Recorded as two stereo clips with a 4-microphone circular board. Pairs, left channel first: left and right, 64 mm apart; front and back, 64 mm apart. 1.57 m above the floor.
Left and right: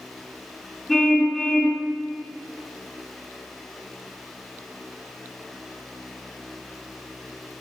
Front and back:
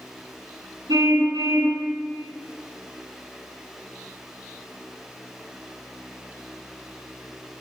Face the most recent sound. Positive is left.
turn(degrees=180)